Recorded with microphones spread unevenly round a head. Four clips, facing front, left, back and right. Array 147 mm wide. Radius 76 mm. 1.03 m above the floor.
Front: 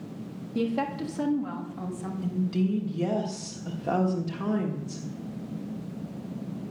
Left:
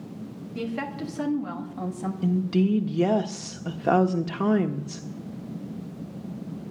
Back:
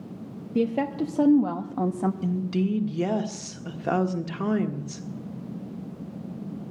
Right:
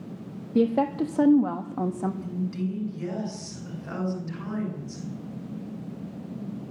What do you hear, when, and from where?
0.6 s a woman speaking: 115° right, 1.3 m; by 2.1 s 160° right, 1.3 m
2.2 s a woman speaking: 100° left, 1.5 m